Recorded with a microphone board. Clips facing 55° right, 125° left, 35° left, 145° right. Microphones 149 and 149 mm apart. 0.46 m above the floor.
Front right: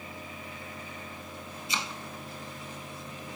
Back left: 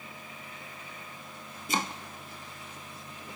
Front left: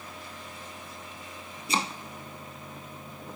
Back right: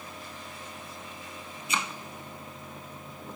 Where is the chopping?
85° left, 1.0 m.